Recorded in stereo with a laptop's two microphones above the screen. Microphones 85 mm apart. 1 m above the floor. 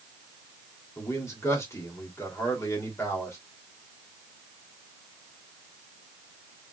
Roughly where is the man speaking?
Left.